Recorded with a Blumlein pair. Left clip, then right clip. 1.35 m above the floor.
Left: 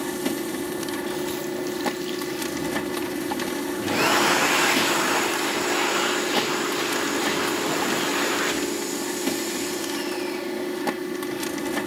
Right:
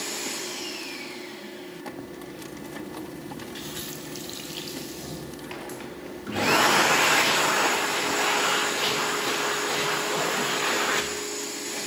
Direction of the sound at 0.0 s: 60° left.